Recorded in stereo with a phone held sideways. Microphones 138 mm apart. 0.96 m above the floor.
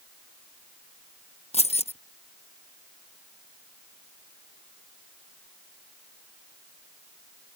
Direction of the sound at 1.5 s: 50° left (ahead or behind).